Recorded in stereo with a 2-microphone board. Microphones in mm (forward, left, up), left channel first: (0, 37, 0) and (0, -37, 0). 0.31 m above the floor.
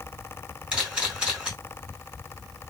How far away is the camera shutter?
About 2.5 m.